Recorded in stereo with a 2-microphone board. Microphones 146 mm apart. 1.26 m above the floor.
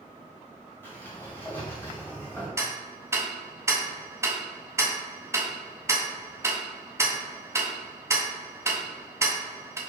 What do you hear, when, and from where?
0.8 s a sliding door: 15° left (ahead or behind), 1.9 m
2.6 s ticking: 20° right (ahead or behind), 0.7 m